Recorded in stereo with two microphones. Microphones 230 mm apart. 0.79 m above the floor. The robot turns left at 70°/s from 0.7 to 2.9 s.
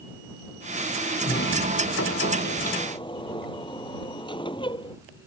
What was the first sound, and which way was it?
A sliding door, 140° left.